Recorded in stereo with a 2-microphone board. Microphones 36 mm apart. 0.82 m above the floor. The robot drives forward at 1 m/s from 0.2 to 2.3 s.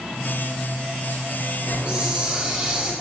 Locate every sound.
1.7 s a hiss: 30° right (ahead or behind), 2.0 m; by 2.9 s 25° right (ahead or behind), 2.5 m